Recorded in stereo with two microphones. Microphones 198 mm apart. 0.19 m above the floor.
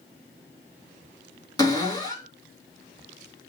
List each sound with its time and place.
1.6 s a cupboard door: 20° left (ahead or behind), 1.7 m